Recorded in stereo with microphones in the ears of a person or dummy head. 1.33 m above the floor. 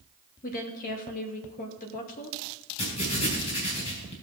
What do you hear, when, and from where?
0.4 s a woman speaking: 40° left (ahead or behind), 2.5 m
2.8 s writing: 30° left (ahead or behind), 5 m